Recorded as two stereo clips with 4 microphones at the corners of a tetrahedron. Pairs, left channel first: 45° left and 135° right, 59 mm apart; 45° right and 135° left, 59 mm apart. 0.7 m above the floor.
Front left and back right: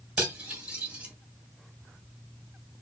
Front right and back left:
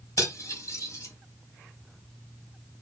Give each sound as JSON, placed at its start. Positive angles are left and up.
{"t": 0.2, "sound": "cutlery clinking", "azimuth_deg": -70, "distance_m": 2.5}